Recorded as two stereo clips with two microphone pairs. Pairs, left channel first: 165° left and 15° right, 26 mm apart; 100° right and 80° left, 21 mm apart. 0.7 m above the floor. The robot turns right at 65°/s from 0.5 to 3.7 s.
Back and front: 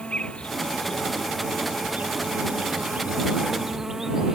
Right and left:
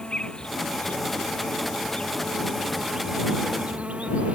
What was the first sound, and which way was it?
An insect, 145° right.